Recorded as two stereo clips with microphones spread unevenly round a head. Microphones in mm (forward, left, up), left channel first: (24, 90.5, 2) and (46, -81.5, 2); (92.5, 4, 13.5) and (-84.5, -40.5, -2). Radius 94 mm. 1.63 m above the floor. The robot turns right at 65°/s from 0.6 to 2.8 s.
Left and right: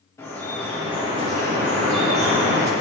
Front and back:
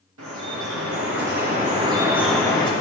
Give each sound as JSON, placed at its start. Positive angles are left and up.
{"t": 0.2, "sound": "dripping", "azimuth_deg": 175, "distance_m": 2.5}